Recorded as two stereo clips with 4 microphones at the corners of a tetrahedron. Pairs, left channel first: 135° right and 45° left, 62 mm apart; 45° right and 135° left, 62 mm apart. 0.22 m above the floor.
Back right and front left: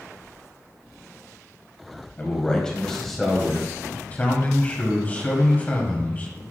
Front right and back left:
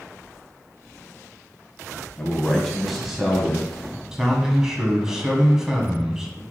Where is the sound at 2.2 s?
100° right, 1.6 m; by 3.7 s 125° left, 1.6 m.